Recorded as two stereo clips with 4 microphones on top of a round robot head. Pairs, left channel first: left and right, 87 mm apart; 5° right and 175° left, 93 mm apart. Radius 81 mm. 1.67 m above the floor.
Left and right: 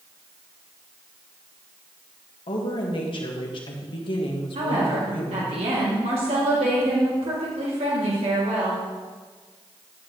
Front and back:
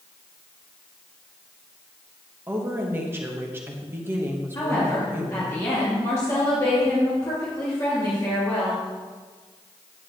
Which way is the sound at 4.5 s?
70° right.